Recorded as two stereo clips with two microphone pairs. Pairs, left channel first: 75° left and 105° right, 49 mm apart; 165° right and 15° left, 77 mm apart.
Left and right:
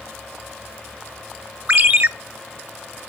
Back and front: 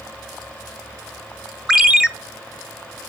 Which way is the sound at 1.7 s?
60° right.